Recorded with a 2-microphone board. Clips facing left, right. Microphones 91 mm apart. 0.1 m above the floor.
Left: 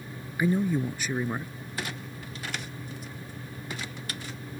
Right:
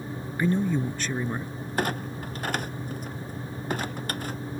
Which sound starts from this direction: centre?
A man speaking, at 0.4 s.